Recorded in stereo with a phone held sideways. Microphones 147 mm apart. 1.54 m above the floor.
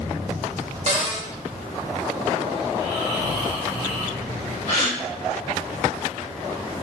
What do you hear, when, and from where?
0.9 s a cupboard door: 50° right (ahead or behind), 0.9 m
2.7 s snoring: 30° right (ahead or behind), 1.1 m
4.7 s a gasp: 60° left (ahead or behind), 1.9 m